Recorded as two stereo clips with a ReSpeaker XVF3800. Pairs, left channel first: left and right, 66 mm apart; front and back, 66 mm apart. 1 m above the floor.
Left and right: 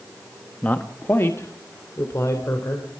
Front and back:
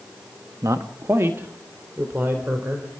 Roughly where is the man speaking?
Behind left.